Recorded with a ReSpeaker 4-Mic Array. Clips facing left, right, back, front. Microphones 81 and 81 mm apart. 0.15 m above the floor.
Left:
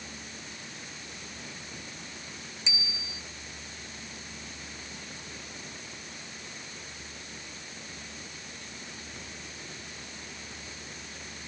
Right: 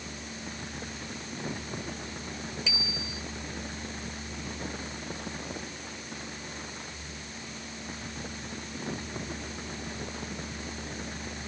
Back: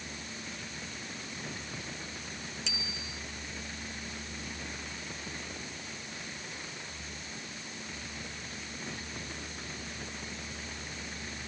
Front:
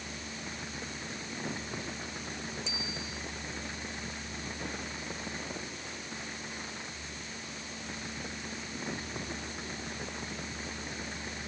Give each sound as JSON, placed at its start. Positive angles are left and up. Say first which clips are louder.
{"t": 2.7, "sound": "a bicycle bell", "louder": "right 4 dB, front 2 dB", "azimuth_deg": 160}